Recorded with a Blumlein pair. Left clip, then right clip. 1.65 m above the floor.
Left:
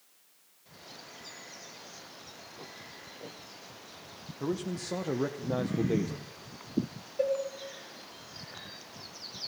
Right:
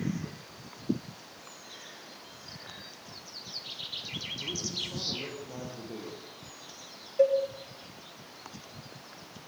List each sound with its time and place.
4.4 s a man speaking: 30° left, 1.7 m
7.2 s a cowbell: 15° right, 3.5 m